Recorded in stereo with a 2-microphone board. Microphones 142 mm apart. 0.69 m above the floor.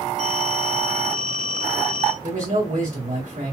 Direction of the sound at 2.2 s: 65° right (ahead or behind).